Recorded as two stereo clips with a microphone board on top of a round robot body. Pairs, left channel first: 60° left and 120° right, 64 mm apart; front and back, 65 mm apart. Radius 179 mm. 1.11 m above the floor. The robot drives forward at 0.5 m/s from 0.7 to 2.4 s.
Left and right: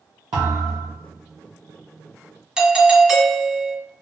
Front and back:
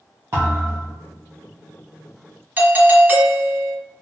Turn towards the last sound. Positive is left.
turn(degrees=175)